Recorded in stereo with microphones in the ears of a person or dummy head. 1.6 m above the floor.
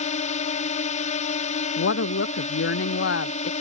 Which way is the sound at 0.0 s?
35° left (ahead or behind).